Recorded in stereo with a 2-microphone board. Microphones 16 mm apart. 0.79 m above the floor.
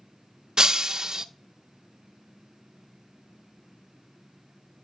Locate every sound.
0.6 s breaking glass: 55° right (ahead or behind), 0.6 m